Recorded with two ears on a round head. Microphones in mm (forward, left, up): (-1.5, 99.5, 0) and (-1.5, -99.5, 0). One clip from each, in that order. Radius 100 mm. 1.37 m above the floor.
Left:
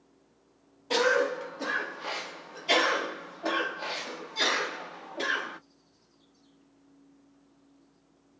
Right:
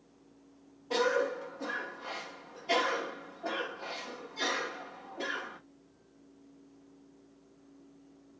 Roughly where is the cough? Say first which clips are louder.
Left 4 dB; left.